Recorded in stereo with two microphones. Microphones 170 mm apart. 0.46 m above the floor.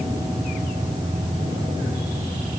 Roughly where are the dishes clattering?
I don't hear dishes clattering.